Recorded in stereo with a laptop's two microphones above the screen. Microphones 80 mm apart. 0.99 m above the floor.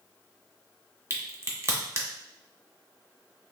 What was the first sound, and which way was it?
A crack, 35° right (ahead or behind).